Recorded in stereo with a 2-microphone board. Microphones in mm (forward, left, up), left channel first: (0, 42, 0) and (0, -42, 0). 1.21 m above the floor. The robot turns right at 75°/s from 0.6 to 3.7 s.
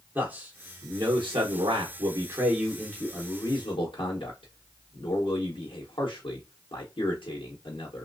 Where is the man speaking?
160° right, 0.8 m; by 8.1 s 75° left, 0.8 m.